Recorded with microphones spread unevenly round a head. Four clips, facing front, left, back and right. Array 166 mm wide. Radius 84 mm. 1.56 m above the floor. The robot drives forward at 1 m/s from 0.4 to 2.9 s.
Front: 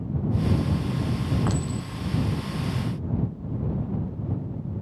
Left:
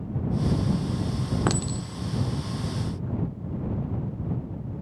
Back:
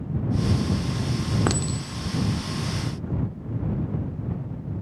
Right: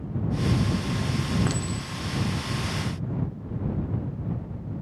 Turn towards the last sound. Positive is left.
turn(degrees=160)